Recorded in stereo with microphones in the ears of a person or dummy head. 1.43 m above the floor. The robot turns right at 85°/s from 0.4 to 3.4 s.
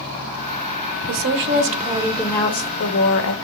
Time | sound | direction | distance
1.1 | a woman speaking | 95° right | 1.1 m